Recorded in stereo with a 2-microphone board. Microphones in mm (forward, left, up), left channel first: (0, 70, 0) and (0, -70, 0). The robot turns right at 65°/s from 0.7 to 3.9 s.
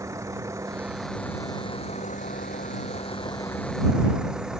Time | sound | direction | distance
0.0 | a vehicle | 25° right | ?